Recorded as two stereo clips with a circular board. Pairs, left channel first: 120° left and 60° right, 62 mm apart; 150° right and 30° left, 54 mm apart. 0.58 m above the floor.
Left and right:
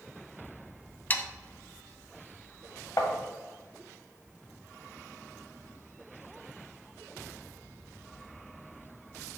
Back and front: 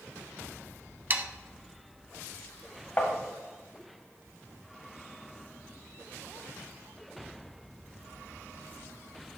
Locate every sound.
1.1 s sawing: 70° left, 0.6 m
3.0 s tapping: 155° left, 1.0 m